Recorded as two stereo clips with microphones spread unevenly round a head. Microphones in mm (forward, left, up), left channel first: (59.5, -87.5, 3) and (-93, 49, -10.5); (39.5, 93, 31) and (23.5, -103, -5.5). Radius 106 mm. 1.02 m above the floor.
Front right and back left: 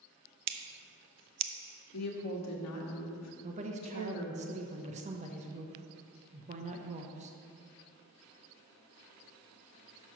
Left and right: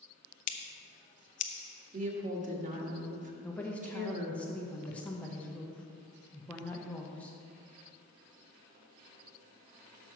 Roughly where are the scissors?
Behind left.